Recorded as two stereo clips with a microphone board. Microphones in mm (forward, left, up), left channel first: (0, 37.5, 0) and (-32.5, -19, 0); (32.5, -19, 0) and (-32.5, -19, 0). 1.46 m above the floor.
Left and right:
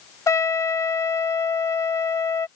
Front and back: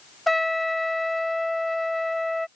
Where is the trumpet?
90° left.